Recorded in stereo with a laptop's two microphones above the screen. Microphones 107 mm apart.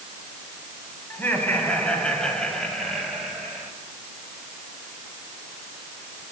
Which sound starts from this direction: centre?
Laughter, at 1.1 s.